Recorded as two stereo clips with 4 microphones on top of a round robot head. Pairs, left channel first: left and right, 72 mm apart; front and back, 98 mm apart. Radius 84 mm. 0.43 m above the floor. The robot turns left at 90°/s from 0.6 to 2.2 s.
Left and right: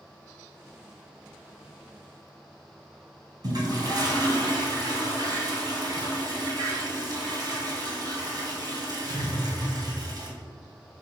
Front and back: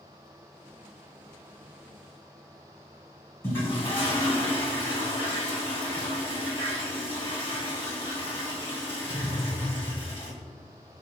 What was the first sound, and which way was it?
A toilet flushing, 65° right.